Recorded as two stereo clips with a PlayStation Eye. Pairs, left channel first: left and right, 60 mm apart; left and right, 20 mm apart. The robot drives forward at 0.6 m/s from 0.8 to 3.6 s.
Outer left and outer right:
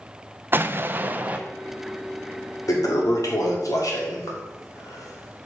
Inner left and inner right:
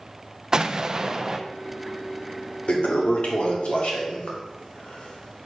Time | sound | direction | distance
0.5 | an explosion | 35° right (ahead or behind) | 0.5 m
2.7 | a toilet flushing | 70° left (ahead or behind) | 1.8 m